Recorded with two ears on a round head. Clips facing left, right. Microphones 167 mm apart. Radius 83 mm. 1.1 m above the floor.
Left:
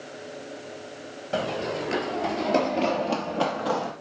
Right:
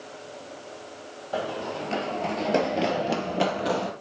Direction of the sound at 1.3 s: 30° left (ahead or behind).